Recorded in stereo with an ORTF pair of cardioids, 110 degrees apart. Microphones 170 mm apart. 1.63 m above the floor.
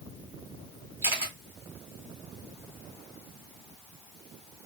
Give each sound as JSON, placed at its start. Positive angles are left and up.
{"t": 1.0, "sound": "a camera shutter", "azimuth_deg": -15, "distance_m": 2.5}